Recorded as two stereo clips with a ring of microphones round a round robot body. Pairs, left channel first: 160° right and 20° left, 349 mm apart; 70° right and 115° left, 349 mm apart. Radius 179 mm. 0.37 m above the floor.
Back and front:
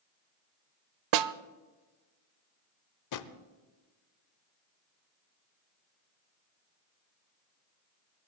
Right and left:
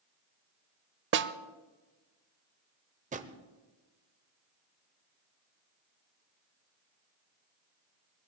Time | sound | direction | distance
1.1 | a snare drum | 55° left | 0.5 m
3.1 | a drawer | straight behind | 0.8 m